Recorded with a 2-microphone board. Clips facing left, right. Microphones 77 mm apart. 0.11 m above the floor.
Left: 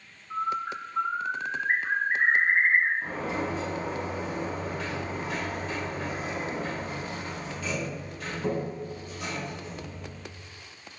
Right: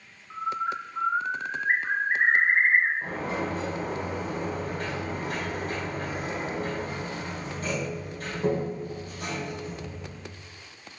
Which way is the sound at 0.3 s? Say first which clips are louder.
Even; 20° right (ahead or behind).